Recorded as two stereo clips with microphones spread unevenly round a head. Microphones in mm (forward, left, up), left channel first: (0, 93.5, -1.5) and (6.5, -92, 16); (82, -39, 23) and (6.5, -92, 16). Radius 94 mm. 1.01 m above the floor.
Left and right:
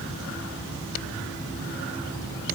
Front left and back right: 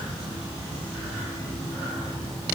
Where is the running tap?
I don't hear a running tap.